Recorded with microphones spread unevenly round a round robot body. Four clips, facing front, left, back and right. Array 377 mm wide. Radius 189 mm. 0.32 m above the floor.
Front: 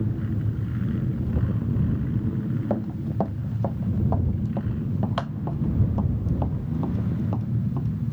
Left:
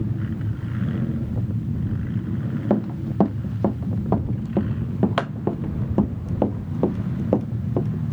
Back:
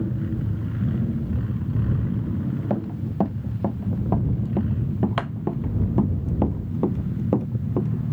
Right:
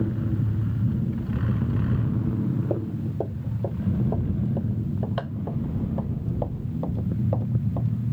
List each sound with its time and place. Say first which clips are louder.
2.7 s running footsteps: left 5 dB, even; 115° left; by 8.1 s 145° left